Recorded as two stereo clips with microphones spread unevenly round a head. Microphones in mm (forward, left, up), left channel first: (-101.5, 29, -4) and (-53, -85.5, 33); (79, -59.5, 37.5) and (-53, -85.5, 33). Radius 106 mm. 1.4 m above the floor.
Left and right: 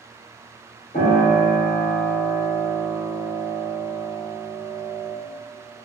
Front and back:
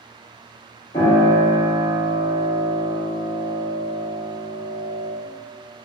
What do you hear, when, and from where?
0.9 s a piano: 65° left, 1.0 m